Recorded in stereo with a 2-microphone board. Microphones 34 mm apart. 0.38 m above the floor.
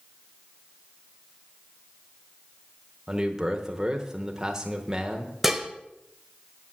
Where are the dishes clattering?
5° right (ahead or behind), 0.9 m.